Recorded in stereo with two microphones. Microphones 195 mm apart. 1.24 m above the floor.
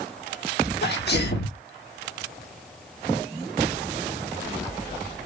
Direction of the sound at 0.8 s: 60° left (ahead or behind).